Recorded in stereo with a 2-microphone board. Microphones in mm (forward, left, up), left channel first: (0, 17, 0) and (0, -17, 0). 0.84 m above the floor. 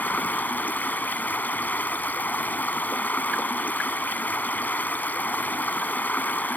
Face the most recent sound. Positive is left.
turn(degrees=55)  # may be behind; listen again after turning